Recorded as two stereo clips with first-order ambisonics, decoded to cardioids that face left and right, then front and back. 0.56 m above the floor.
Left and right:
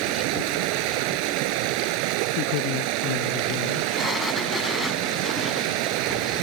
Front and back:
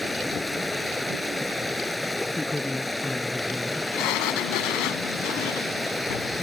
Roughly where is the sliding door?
Ahead.